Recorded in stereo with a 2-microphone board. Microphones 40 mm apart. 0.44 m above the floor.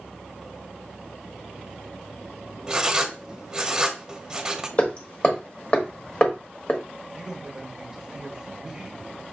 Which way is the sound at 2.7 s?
15° right (ahead or behind).